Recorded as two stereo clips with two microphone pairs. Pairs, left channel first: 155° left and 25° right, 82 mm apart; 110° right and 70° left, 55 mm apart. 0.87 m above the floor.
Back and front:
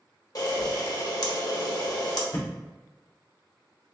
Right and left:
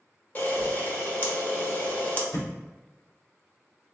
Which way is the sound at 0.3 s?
165° right.